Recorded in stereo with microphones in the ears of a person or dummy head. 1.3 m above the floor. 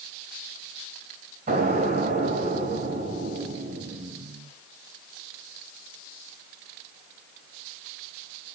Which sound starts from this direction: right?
An explosion, at 1.5 s.